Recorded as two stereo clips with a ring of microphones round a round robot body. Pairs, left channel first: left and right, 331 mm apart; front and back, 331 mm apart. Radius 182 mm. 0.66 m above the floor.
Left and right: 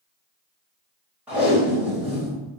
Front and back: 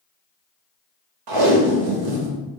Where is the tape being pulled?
175° right, 0.7 m.